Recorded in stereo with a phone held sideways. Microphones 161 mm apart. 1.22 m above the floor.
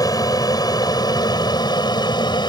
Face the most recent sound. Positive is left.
turn(degrees=25)  # may be behind; listen again after turning